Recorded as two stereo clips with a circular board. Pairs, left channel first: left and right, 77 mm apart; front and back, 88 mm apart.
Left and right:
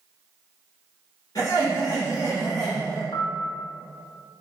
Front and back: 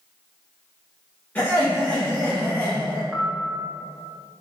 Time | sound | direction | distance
1.4 | laughter | 70° left | 1.8 m
3.1 | a piano | 100° left | 0.7 m